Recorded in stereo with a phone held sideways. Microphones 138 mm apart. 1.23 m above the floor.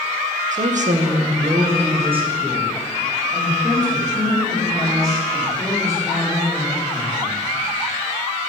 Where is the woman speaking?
65° right (ahead or behind), 0.7 m; by 7.4 s 25° right (ahead or behind), 4.5 m.